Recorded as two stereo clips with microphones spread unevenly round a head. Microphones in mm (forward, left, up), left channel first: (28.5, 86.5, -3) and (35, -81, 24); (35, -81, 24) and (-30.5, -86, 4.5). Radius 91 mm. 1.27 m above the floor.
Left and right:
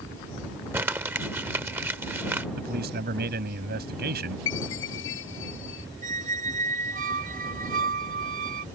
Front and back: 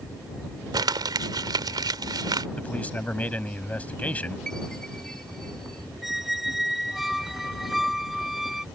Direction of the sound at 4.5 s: 90° left.